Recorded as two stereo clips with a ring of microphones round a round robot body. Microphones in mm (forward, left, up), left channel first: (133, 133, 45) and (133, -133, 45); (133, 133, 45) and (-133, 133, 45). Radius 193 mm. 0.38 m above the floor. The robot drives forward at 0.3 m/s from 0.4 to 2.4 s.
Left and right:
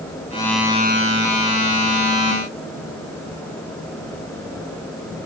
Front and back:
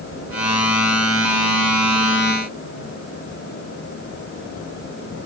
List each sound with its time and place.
Only background noise.